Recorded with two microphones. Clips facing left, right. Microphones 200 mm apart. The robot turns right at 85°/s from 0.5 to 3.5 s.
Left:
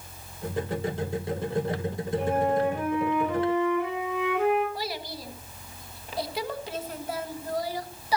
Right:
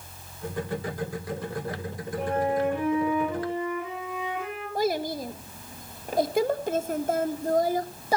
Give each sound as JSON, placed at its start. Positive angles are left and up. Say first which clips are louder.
{"t": 2.2, "sound": "a flute", "louder": "even", "azimuth_deg": -5, "distance_m": 6.5}
{"t": 4.8, "sound": "a child speaking", "louder": "right 9 dB", "side_deg": -50, "distance_m": 1.3}